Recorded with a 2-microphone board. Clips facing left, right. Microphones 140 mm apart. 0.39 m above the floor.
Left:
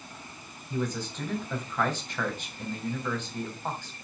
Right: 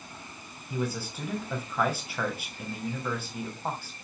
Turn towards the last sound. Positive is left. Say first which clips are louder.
# left 1 dB
turn(degrees=-10)  # may be behind; listen again after turning